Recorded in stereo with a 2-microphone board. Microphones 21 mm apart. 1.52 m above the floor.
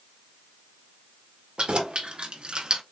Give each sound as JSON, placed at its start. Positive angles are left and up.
{"t": 1.6, "sound": "keys jangling", "side_deg": -55, "distance_m": 1.6}